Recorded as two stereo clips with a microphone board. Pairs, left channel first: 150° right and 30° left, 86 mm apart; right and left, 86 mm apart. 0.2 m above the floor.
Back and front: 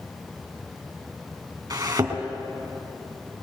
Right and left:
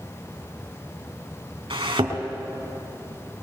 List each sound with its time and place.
1.7 s a thud: 70° left, 3.5 m